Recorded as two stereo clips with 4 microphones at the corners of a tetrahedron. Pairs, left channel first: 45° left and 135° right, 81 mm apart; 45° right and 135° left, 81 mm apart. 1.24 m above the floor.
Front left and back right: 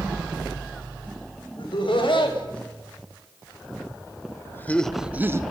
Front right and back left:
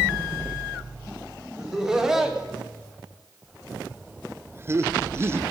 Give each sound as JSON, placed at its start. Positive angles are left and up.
{"t": 1.6, "sound": "laughter", "azimuth_deg": 50, "distance_m": 2.5}